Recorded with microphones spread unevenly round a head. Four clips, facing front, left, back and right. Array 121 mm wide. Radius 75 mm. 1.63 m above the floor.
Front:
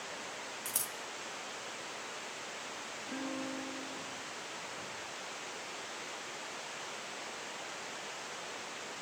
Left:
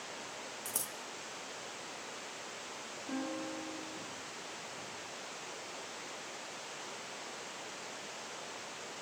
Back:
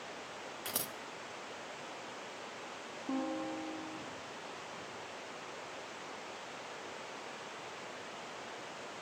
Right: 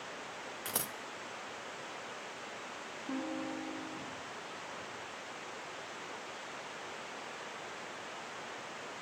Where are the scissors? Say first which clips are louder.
Right 4 dB, back 2 dB; 95° right, 0.5 m.